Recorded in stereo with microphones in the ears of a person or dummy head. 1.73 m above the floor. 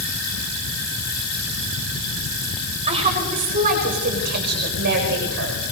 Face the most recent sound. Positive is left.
turn(degrees=-60)  # may be behind; listen again after turning